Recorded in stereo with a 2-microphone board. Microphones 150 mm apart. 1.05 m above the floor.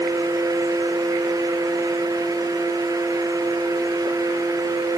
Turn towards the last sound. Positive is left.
No sound to turn to.